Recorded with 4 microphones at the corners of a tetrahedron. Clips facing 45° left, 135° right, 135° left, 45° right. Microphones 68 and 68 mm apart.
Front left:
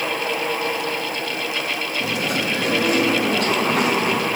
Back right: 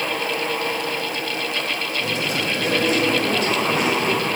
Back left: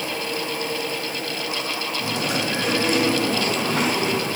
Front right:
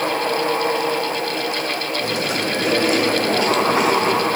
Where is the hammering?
No hammering in this recording.